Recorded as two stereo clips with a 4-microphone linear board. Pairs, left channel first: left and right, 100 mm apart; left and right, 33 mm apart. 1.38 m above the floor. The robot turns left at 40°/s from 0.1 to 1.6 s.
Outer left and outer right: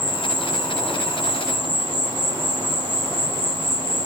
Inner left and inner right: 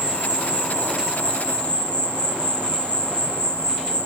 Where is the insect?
25° right, 1.4 m; by 4.1 s 85° right, 1.4 m.